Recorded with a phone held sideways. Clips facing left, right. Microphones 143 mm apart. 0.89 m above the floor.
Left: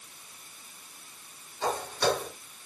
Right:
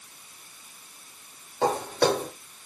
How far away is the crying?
I don't hear crying.